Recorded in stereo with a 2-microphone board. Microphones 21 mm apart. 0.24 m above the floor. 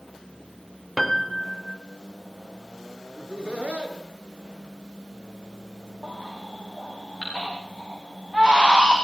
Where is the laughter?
70° right (ahead or behind), 4.5 m.